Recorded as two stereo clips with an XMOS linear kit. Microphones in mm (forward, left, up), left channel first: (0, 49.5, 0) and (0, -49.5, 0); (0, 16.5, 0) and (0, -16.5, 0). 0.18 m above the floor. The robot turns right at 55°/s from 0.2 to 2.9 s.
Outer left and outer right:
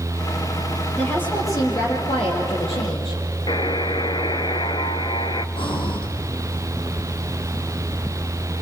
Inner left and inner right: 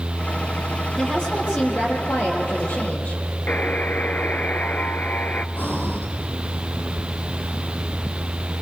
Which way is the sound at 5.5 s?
60° left (ahead or behind).